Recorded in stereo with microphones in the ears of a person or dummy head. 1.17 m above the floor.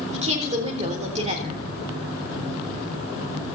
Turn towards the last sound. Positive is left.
turn(degrees=-30)  # may be behind; listen again after turning